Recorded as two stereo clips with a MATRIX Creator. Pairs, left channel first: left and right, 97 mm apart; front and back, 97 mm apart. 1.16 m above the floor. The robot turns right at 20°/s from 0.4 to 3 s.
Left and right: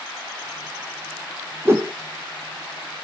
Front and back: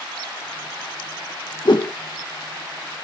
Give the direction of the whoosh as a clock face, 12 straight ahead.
1 o'clock.